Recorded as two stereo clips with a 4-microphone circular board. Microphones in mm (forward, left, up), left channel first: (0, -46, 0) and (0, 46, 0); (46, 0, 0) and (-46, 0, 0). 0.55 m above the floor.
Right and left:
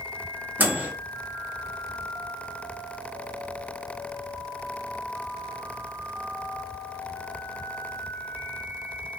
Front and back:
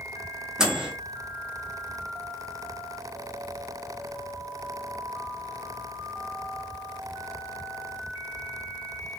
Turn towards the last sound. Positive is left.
turn(degrees=115)